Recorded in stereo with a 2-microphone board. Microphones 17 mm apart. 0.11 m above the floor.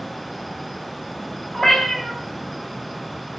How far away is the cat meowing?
About 1.1 m.